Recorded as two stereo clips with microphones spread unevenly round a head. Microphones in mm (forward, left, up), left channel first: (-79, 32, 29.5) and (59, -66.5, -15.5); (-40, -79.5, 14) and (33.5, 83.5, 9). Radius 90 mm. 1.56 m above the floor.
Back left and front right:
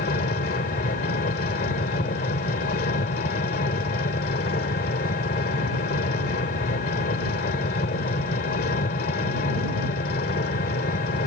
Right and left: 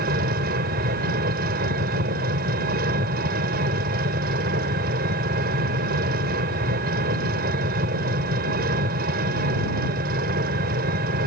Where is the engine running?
105° left.